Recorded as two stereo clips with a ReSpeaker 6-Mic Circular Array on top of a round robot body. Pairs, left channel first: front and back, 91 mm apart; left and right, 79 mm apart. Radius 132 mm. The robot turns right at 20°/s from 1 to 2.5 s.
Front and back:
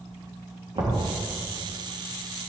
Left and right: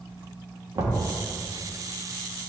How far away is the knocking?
About 1.6 m.